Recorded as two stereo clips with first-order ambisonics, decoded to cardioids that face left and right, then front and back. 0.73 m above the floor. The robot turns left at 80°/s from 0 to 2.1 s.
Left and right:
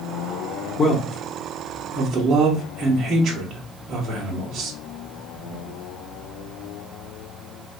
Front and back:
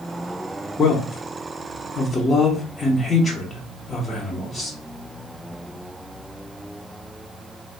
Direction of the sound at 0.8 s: 45° left.